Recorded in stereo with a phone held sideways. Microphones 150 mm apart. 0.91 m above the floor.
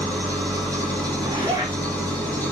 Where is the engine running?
10° left (ahead or behind), 2 m.